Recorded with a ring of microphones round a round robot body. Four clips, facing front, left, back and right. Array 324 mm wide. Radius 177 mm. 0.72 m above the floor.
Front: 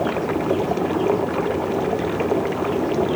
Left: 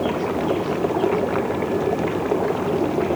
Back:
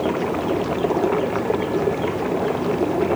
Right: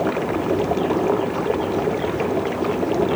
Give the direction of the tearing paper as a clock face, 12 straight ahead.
No tearing paper in this recording.